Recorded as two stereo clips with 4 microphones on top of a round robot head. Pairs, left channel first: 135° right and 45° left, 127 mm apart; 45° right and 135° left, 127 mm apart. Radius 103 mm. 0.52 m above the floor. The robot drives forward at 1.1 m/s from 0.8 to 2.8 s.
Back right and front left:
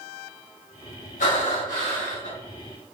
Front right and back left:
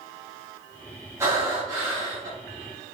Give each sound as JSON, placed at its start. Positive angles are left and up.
{"t": 1.2, "sound": "breathing", "azimuth_deg": -155, "distance_m": 4.0}